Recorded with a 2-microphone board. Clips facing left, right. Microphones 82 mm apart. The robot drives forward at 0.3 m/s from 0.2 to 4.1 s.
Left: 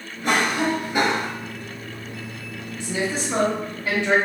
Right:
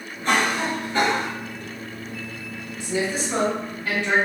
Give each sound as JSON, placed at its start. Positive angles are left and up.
{"t": 0.2, "sound": "a cough", "side_deg": 15, "distance_m": 0.9}
{"t": 2.8, "sound": "a woman speaking", "side_deg": 20, "distance_m": 1.1}